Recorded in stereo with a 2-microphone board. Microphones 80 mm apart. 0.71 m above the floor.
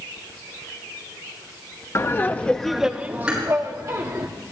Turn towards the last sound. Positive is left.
turn(degrees=-15)  # may be behind; listen again after turning